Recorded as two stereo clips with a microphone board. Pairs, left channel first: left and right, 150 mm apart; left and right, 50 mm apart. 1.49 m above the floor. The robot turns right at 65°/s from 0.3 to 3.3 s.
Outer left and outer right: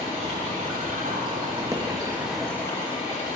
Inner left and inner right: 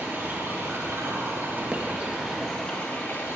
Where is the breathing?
I don't hear breathing.